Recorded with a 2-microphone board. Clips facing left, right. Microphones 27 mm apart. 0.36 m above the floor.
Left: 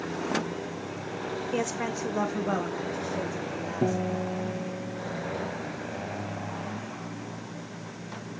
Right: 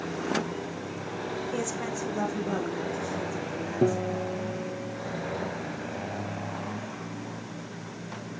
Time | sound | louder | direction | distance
1.5 | a woman speaking | left 2 dB | 25° left (ahead or behind) | 0.9 m
3.8 | a guitar | right 2 dB | 30° right (ahead or behind) | 2.5 m